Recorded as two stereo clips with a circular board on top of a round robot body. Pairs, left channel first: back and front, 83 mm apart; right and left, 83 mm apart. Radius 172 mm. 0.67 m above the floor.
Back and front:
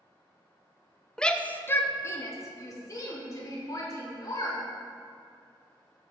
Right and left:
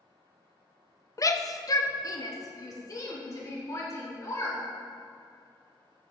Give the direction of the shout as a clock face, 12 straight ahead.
3 o'clock.